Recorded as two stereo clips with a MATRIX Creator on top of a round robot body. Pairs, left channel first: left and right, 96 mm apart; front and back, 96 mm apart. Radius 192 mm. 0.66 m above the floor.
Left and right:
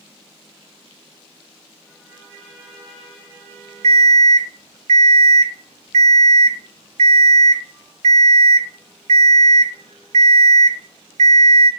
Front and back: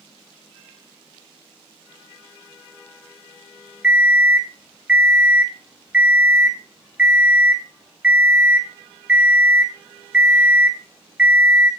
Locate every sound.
3.8 s an alarm clock: 100° right, 1.4 m